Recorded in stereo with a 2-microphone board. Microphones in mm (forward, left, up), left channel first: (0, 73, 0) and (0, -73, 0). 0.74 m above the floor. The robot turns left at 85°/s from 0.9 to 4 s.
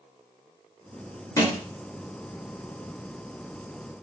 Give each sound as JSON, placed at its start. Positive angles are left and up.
{"t": 1.4, "sound": "a thud", "side_deg": 25, "distance_m": 0.7}